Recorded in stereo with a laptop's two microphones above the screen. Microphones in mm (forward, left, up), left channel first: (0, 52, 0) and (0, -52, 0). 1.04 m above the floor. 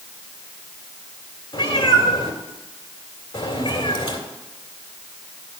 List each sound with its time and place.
1.5 s a cat meowing: 50° left (ahead or behind), 2.5 m